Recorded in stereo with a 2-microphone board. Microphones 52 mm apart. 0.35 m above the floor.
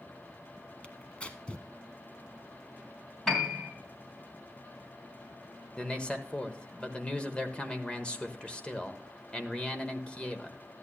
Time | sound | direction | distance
0.8 | tearing paper | 25° left (ahead or behind) | 0.9 m
3.3 | a piano | 10° left (ahead or behind) | 2 m
5.8 | a man speaking | 20° left (ahead or behind) | 1.0 m